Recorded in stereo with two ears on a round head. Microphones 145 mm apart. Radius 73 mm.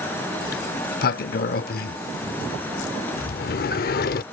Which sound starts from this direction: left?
A sliding door, at 0.4 s.